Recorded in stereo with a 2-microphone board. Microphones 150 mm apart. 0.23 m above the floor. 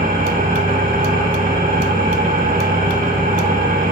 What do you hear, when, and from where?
0.0 s an engine running: 70° right (ahead or behind), 9 m